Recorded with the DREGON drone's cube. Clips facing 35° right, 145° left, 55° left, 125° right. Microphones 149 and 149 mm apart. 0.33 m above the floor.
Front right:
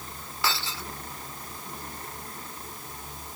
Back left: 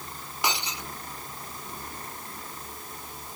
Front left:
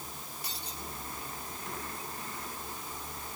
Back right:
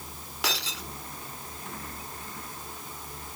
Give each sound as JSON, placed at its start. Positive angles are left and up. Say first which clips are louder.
{"t": 0.4, "sound": "breaking glass", "louder": "back left 1 dB, back right 12 dB", "azimuth_deg": -140}